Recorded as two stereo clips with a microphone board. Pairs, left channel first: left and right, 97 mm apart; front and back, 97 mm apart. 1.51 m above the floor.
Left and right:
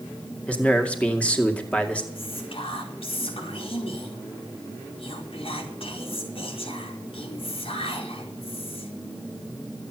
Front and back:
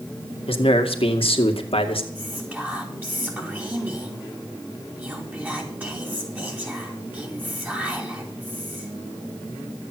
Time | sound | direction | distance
0.5 | a man speaking | 10° left | 2 m
2.1 | whispering | 110° left | 4.5 m